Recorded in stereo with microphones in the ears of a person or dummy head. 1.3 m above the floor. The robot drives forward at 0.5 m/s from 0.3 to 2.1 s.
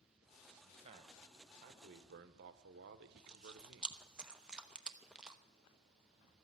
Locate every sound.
0.6 s a man speaking: 30° right (ahead or behind), 1.4 m; by 4.0 s 55° right (ahead or behind), 0.9 m
3.1 s chewing: 5° right (ahead or behind), 0.8 m